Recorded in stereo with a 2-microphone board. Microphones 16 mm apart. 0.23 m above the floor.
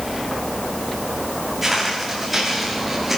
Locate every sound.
1.6 s footsteps: 10° right (ahead or behind), 9.5 m; by 3.2 s 5° right (ahead or behind), 9 m